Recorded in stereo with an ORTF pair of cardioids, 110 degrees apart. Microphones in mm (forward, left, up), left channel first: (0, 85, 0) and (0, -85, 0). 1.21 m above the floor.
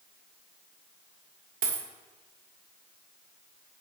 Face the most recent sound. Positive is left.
turn(degrees=-60)